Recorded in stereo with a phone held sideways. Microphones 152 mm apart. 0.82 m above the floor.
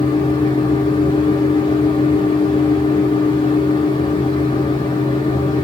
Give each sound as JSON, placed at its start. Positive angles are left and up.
{"t": 0.0, "sound": "a fan", "side_deg": 30, "distance_m": 2.5}